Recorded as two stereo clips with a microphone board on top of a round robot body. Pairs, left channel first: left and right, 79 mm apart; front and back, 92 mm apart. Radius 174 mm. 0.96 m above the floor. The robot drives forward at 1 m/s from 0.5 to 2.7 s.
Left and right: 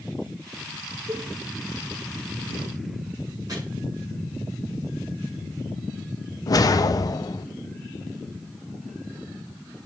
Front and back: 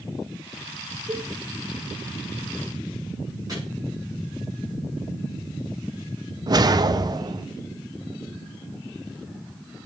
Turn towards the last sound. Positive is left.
turn(degrees=135)